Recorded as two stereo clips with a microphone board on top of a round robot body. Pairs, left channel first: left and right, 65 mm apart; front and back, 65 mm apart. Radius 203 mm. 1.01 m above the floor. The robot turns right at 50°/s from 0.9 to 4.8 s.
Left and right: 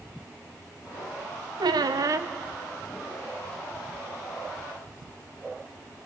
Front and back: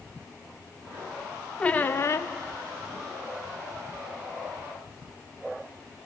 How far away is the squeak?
About 0.5 m.